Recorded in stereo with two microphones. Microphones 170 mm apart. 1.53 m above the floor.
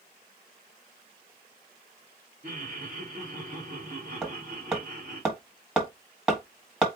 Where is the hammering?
5° right (ahead or behind), 1.4 m.